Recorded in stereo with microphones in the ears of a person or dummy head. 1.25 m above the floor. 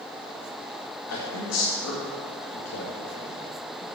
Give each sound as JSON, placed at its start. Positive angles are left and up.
{"t": 1.1, "sound": "a man speaking", "side_deg": 80, "distance_m": 1.9}